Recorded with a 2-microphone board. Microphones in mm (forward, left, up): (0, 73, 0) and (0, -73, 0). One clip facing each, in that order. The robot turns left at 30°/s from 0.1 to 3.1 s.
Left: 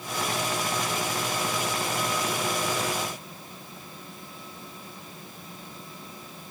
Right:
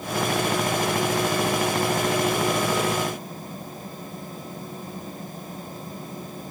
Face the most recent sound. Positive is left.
No sound to turn to.